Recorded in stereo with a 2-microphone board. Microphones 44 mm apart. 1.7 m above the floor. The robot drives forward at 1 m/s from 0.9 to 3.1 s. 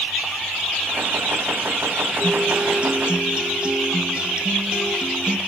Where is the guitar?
15° right (ahead or behind), 0.7 m; by 5.4 s 20° right (ahead or behind), 0.6 m.